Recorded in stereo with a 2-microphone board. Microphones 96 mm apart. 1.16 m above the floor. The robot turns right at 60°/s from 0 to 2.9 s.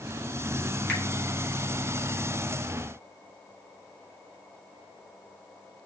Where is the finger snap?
20° left (ahead or behind), 4.5 m; by 1.0 s 25° left (ahead or behind), 4.5 m.